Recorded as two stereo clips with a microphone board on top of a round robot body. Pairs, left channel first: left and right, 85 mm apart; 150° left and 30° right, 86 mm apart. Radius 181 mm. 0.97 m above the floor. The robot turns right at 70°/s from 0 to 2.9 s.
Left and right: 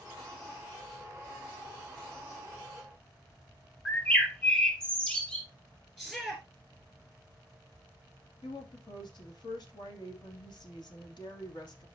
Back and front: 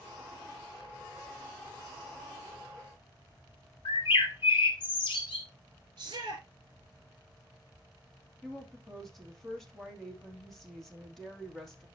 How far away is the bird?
About 0.8 m.